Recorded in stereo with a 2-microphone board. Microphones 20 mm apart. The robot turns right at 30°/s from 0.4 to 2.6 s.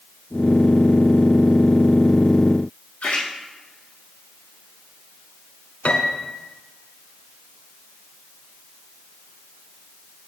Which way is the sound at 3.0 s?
60° left (ahead or behind).